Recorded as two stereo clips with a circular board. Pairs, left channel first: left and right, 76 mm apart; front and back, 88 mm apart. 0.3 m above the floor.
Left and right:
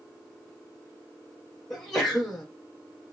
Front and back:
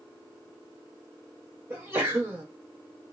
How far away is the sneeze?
About 0.9 m.